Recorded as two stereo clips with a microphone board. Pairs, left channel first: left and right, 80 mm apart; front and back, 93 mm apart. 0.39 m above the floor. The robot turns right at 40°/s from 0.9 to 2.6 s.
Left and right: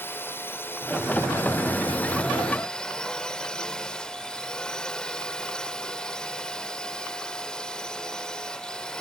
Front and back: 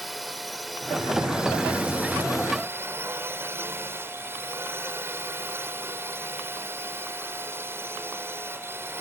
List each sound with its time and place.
0.0 s a drone: 90° left; by 9.0 s 160° left